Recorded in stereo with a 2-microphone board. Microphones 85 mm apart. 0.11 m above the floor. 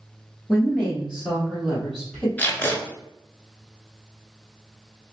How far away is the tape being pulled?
About 1.3 m.